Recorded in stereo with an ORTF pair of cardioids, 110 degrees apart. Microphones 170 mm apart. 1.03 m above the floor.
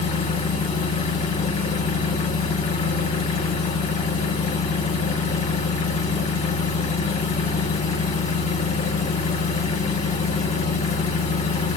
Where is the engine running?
40° left, 1.5 m.